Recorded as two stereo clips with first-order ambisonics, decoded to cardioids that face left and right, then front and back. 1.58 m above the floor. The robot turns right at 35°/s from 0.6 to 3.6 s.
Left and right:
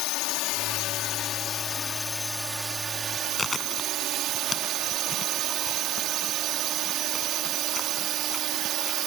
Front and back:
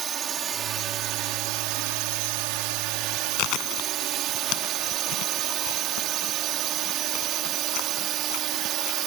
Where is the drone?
120° left; by 9.1 s 135° right.